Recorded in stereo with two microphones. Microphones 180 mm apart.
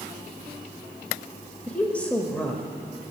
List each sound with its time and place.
1.7 s a woman speaking: 10° left (ahead or behind), 1.0 m